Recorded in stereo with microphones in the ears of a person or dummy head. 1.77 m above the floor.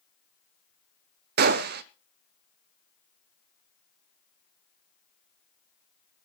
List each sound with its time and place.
1.4 s a gunshot: 50° right (ahead or behind), 0.8 m